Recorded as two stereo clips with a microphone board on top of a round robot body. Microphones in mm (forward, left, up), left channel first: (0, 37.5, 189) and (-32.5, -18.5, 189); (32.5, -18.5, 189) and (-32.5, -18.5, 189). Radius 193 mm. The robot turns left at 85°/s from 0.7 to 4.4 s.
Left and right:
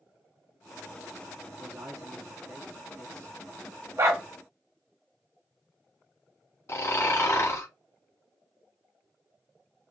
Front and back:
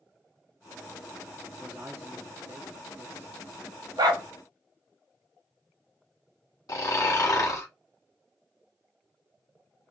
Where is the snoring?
15° left, 2.0 m.